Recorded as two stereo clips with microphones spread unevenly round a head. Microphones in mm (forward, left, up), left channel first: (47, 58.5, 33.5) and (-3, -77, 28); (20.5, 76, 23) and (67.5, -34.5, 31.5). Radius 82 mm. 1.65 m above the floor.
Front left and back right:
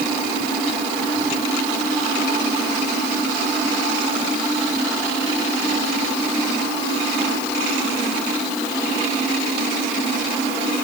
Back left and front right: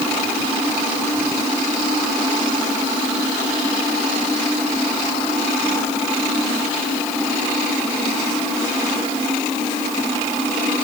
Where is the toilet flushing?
No toilet flushing in this recording.